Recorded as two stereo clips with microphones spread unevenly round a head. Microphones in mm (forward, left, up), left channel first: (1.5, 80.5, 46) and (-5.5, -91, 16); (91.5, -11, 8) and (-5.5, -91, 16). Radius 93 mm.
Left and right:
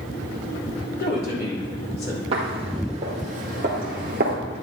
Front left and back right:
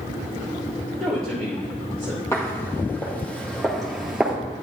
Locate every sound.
1.0 s a woman speaking: 125° left, 3.5 m
2.3 s footsteps: 30° right, 2.5 m; by 4.4 s 65° right, 2.0 m